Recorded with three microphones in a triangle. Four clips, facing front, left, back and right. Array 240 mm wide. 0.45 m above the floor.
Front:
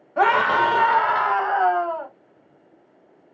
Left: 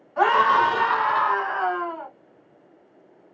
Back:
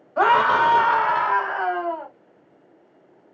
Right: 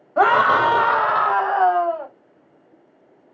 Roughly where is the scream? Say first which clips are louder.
Right 3 dB, back 1 dB; right.